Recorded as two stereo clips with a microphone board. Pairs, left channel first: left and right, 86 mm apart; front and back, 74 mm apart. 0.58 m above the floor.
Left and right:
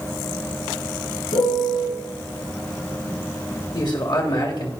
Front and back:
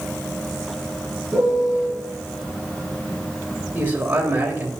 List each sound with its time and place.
1.3 s a piano: 105° left, 5 m
3.7 s a man speaking: 115° left, 3 m